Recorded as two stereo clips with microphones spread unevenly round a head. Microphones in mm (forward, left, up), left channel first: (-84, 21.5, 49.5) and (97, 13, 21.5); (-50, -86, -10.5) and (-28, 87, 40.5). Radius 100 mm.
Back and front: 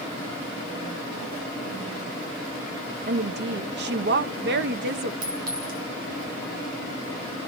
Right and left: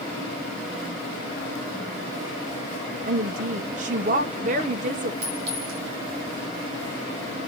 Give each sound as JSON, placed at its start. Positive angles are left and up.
{"t": 3.1, "sound": "a woman speaking", "azimuth_deg": 30, "distance_m": 1.0}
{"t": 5.2, "sound": "a clink", "azimuth_deg": 40, "distance_m": 5.5}